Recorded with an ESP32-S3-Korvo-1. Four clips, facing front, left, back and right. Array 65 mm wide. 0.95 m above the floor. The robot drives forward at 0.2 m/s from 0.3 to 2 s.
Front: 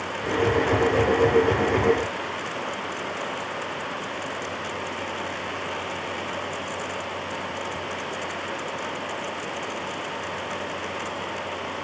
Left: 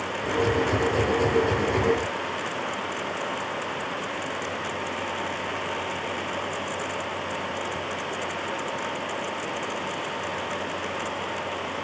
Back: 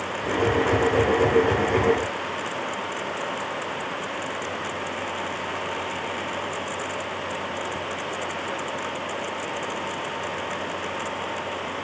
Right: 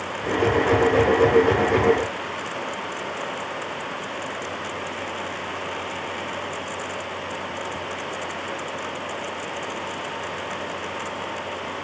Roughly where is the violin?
I don't hear a violin.